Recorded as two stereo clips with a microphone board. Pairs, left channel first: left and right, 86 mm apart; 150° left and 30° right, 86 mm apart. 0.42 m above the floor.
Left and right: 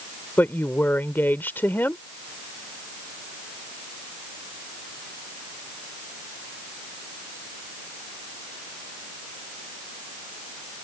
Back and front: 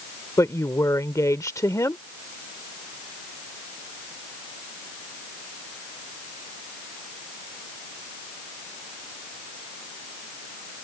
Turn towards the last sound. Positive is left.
turn(degrees=140)